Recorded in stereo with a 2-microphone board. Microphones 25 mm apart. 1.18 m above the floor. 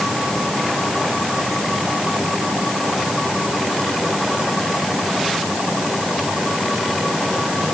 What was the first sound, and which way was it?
Only background noise.